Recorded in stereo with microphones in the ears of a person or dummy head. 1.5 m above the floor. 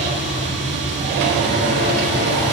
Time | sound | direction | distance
0.0 | a machine running | 50° right (ahead or behind) | 1.7 m